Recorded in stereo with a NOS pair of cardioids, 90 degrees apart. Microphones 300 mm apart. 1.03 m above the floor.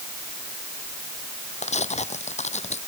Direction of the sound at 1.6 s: 20° left.